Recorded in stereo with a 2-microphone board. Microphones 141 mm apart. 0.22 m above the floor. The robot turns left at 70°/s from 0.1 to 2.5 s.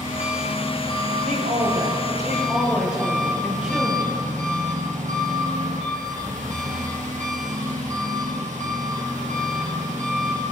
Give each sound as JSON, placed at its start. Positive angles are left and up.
{"t": 0.0, "sound": "an engine running", "azimuth_deg": 90, "distance_m": 3.5}
{"t": 1.2, "sound": "a woman speaking", "azimuth_deg": -85, "distance_m": 5.0}